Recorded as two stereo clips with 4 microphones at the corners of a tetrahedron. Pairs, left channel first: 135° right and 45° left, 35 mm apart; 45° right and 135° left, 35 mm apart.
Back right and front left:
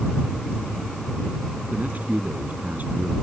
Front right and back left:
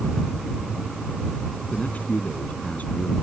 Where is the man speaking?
Straight ahead.